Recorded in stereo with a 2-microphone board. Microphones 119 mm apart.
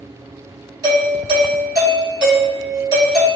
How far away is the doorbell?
About 1.9 m.